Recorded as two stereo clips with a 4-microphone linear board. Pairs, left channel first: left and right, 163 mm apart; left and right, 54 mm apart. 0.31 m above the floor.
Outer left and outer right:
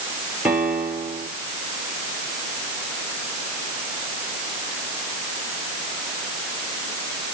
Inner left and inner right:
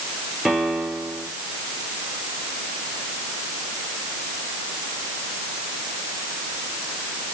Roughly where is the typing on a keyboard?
No typing on a keyboard in this recording.